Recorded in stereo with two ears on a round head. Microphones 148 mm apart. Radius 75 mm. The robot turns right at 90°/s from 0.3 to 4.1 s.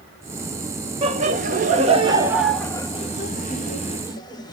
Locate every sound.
1.0 s laughter: 35° right (ahead or behind), 1.0 m; by 4.5 s 25° left (ahead or behind), 1.0 m